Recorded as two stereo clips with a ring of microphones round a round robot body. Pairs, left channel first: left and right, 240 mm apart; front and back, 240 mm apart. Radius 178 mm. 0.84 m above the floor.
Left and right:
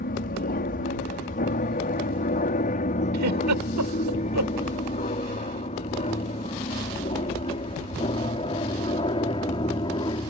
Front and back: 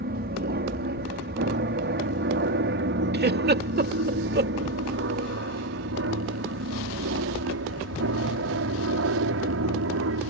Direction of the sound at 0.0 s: 135° left.